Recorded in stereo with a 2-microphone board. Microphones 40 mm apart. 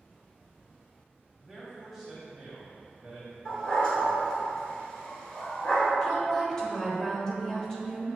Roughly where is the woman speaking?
Centre.